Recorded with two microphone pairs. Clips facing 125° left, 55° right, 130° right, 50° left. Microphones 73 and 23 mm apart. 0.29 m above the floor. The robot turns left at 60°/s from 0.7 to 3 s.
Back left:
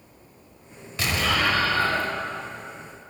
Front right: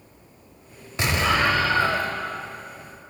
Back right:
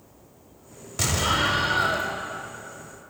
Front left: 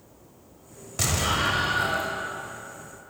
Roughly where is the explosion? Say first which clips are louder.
Front right 3 dB, back right 2 dB; ahead right.